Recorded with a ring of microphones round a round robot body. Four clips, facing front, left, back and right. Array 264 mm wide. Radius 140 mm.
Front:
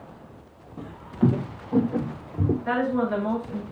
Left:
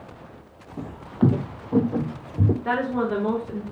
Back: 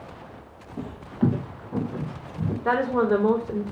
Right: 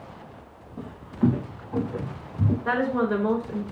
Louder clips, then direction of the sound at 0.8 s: Left 2 dB, front 1 dB; 125° left.